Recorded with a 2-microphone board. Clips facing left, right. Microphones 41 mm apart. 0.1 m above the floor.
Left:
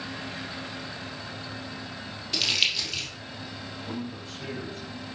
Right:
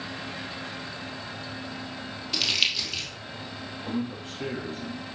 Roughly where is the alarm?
No alarm in this recording.